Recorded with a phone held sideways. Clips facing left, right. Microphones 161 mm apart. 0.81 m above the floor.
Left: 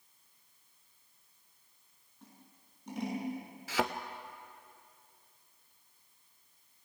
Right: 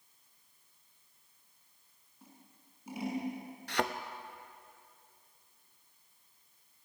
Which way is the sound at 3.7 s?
5° left (ahead or behind).